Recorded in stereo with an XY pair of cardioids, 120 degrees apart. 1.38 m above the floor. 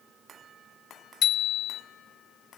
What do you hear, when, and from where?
1.2 s a bicycle bell: 55° left, 2.5 m